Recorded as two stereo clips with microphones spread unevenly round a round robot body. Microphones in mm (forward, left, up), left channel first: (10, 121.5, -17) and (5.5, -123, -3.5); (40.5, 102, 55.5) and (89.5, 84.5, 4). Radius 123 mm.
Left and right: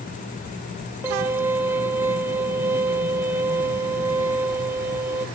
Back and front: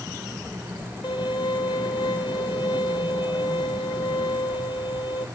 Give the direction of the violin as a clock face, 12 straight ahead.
6 o'clock.